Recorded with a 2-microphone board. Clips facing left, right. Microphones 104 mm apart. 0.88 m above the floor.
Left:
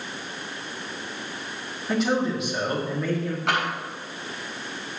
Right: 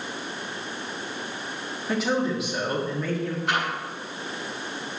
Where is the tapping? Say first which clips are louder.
Left 2 dB; 80° left, 4 m.